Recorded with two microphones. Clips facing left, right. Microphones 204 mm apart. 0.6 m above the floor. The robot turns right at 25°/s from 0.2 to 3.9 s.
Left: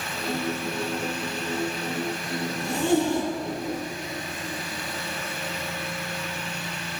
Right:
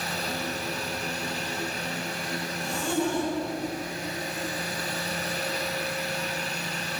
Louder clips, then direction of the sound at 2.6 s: Left 5 dB; 65° left (ahead or behind).